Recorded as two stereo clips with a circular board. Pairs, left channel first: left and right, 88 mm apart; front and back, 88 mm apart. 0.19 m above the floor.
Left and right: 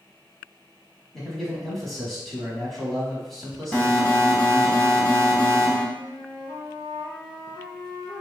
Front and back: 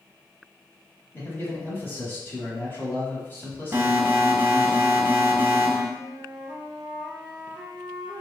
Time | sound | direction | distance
1.1 | a man speaking | 5° left | 1.0 m
3.7 | an alarm | 140° left | 0.8 m
6.0 | a flute | 90° left | 1.7 m